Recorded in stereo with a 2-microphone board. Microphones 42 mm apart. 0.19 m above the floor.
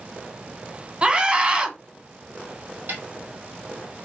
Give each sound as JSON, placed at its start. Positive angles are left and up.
{"t": 1.0, "sound": "a scream", "side_deg": -25, "distance_m": 1.1}
{"t": 2.9, "sound": "a snare drum", "side_deg": -55, "distance_m": 3.0}